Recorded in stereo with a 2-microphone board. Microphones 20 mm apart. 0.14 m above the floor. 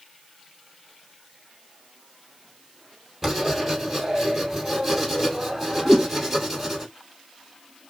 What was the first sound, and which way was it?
Writing, 5° right (ahead or behind).